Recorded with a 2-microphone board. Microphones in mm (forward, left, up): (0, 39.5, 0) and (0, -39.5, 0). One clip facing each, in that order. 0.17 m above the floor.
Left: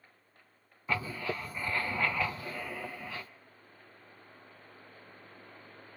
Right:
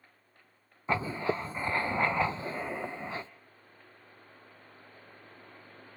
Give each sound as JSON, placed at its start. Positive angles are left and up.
{"t": 0.9, "sound": "writing", "side_deg": -25, "distance_m": 0.8}